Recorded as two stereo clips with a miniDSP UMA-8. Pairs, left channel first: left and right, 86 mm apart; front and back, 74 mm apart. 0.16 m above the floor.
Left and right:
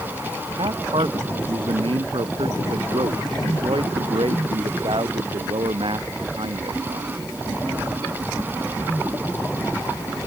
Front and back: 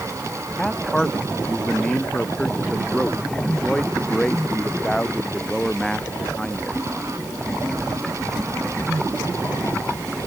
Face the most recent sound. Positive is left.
turn(degrees=-80)